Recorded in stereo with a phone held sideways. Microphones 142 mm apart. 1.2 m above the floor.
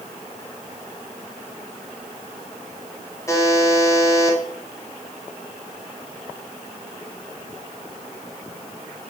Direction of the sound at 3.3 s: 20° left (ahead or behind).